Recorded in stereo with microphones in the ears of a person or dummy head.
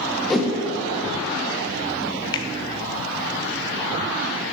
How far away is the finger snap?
About 0.8 m.